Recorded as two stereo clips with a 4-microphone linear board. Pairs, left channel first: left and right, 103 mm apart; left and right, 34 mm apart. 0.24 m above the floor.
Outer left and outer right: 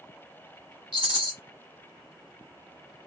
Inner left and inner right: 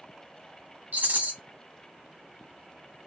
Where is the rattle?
50° right (ahead or behind), 0.8 m.